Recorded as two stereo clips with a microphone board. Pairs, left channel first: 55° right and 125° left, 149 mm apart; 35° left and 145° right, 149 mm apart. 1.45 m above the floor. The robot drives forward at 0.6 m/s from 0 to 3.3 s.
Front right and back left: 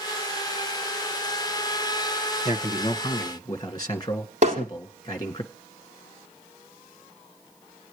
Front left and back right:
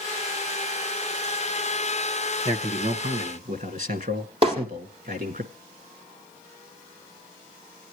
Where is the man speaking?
105° right, 1.6 m; by 5.4 s 120° right, 1.8 m.